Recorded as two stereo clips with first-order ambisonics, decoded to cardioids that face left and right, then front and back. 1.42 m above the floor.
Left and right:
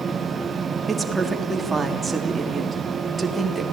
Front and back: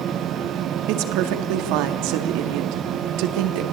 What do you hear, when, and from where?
0.9 s a woman speaking: 170° right, 3.5 m